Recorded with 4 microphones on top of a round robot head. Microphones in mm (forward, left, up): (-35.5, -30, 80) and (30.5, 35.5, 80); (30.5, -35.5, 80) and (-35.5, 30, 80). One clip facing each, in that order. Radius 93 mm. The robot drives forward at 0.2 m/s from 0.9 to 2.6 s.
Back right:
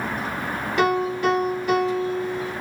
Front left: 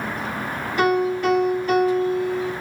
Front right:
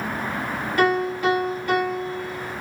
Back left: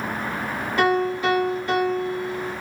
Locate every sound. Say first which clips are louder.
0.8 s a piano: front left 2 dB, even; 155° right, 2.0 m; by 2.5 s 160° right, 2.5 m